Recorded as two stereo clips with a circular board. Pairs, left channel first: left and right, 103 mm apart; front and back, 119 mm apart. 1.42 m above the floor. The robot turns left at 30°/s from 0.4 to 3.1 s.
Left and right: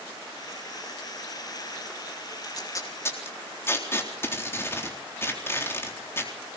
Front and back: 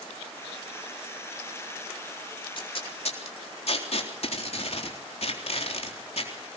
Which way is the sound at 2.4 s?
45° left.